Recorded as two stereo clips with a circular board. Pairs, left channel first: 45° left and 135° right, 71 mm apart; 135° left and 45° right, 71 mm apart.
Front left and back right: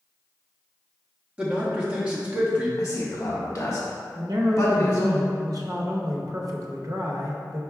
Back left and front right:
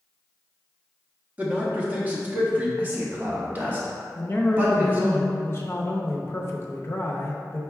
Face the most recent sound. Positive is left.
turn(degrees=-170)